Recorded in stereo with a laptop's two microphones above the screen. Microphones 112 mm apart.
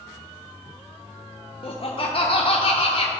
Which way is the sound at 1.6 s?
50° left (ahead or behind).